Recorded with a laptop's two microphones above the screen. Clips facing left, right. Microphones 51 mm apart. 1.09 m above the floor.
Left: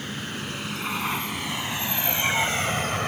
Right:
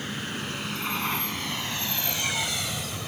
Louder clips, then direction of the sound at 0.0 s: Even; centre (ahead or behind).